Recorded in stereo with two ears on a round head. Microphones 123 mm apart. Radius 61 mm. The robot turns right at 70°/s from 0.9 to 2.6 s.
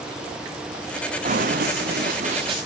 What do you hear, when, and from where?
1.2 s running footsteps: 55° right (ahead or behind), 3 m; by 2.6 s 30° right (ahead or behind), 4 m